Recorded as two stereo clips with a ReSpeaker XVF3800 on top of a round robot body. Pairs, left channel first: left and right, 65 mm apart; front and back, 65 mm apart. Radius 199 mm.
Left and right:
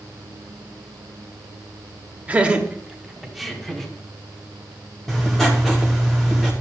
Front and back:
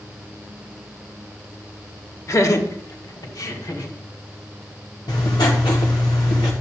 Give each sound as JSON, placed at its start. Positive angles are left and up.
{"t": 2.3, "sound": "laughter", "azimuth_deg": -25, "distance_m": 1.3}
{"t": 5.1, "sound": "writing", "azimuth_deg": 5, "distance_m": 0.8}